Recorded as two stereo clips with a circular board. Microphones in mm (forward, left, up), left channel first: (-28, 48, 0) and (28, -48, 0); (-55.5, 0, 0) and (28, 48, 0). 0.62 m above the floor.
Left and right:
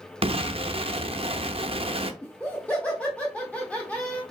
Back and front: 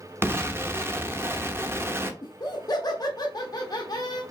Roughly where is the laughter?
Behind.